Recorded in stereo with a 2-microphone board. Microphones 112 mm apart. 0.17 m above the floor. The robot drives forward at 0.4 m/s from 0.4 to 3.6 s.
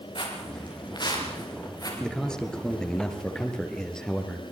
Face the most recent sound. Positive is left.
turn(degrees=5)  # may be behind; listen again after turning